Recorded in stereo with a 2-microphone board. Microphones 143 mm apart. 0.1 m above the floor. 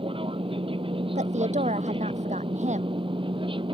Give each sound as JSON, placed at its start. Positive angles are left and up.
{"t": 0.0, "sound": "an aircraft", "side_deg": -40}
{"t": 1.1, "sound": "a woman speaking", "side_deg": -55}